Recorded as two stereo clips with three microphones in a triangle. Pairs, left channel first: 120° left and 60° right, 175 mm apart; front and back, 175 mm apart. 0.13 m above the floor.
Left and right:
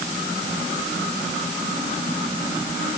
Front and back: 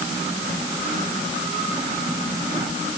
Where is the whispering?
I don't hear whispering.